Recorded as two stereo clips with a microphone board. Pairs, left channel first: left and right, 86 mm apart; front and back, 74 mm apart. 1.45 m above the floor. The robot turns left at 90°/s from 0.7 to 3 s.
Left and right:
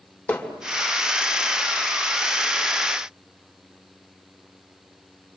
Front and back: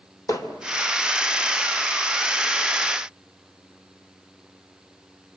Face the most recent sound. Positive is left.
turn(degrees=180)